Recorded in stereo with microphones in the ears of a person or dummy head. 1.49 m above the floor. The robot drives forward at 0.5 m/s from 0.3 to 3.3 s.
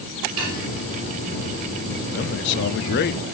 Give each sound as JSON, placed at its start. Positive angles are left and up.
{"t": 0.4, "sound": "dishes clattering", "side_deg": -70, "distance_m": 1.5}
{"t": 2.1, "sound": "a man speaking", "side_deg": 50, "distance_m": 0.6}